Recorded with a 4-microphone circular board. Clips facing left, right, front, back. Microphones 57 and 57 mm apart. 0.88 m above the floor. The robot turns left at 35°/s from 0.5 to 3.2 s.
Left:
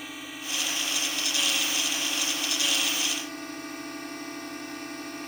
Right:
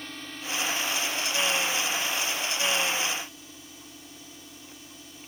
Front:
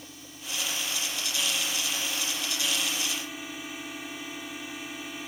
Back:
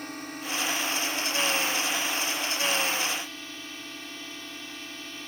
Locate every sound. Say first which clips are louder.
0.0 s a drone: left 1 dB, back 9 dB; 170° left; by 5.3 s 75° left